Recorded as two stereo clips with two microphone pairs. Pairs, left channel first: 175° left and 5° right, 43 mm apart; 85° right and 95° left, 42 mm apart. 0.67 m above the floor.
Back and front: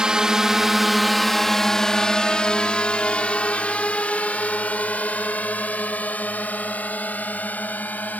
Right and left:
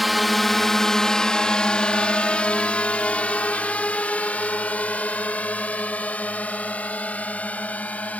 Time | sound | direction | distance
0.0 | a drone | 5° left | ?